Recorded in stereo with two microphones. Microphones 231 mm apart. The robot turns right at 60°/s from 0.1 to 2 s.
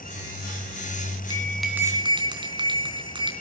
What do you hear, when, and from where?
1.3 s a bell: 160° left, 3.5 m; by 3.3 s 160° right, 3.5 m